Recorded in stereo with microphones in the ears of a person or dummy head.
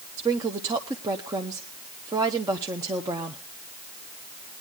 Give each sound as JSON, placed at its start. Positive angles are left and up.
{"t": 0.2, "sound": "a woman speaking", "side_deg": -20, "distance_m": 1.0}